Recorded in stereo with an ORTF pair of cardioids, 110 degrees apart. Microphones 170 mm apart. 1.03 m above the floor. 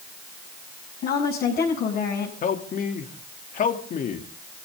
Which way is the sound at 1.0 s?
65° left.